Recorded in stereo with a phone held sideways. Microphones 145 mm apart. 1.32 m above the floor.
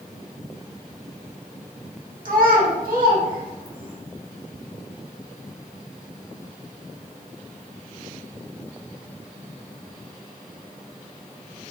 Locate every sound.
2.2 s a child speaking: 70° right (ahead or behind), 1.4 m; by 4.0 s 65° right (ahead or behind), 3 m